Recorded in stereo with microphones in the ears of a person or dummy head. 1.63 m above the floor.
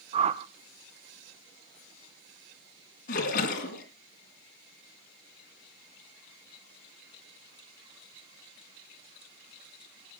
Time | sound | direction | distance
0.1 | a whoosh | 35° right (ahead or behind) | 0.9 m
3.1 | a splash | 45° left (ahead or behind) | 3 m